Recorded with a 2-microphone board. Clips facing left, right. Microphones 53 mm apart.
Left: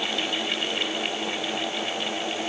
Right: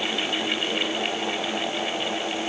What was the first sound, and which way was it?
Only background noise.